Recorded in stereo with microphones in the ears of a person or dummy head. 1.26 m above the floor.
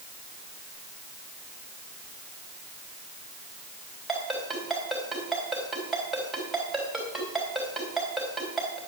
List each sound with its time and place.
4.1 s a ringtone: centre (ahead or behind), 3.5 m